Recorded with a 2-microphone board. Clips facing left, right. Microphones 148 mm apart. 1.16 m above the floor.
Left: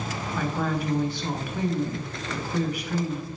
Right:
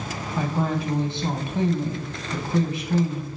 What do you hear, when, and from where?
0.4 s a woman speaking: 25° right (ahead or behind), 0.5 m